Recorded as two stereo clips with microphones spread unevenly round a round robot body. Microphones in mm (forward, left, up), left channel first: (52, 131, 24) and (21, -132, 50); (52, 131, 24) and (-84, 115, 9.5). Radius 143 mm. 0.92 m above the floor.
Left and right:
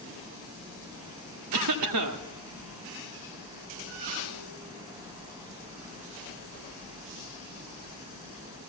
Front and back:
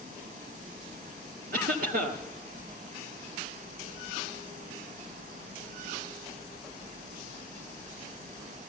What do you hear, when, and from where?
1.5 s a cough: 130° right, 1.6 m